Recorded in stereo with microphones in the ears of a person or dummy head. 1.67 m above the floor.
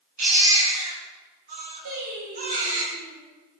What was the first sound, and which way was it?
A baby crying, 45° right (ahead or behind).